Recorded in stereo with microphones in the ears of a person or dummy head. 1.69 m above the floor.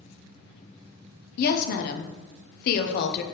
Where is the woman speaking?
55° left (ahead or behind), 0.6 m.